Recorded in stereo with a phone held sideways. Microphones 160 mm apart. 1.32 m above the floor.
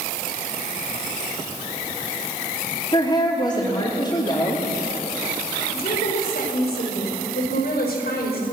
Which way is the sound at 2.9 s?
30° left (ahead or behind).